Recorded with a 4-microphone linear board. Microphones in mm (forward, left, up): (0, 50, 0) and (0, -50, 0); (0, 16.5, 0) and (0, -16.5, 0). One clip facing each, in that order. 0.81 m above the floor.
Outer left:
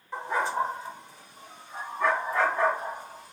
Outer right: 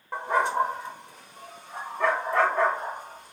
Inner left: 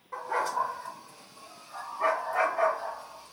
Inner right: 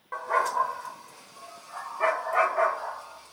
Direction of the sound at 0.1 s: 60° right (ahead or behind).